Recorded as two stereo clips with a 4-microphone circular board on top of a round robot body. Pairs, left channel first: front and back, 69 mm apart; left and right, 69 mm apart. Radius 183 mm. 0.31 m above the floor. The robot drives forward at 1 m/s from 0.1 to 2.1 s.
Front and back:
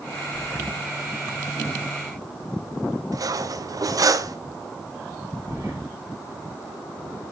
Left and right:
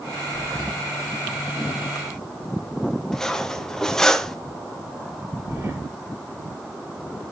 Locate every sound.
0.3 s breathing: 95° right, 6 m; by 0.8 s 100° right, 6 m
3.1 s cutlery clinking: 170° left, 1.1 m
5.5 s breathing: 145° right, 6 m